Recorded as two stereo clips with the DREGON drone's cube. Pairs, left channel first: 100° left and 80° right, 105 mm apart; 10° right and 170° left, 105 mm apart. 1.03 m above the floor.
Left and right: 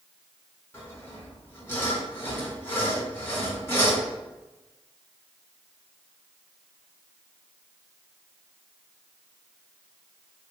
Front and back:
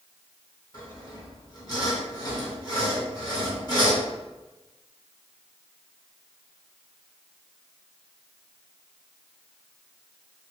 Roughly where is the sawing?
Ahead left.